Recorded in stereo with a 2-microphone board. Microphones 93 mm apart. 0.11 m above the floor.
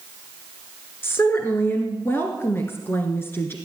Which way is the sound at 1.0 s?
25° left (ahead or behind).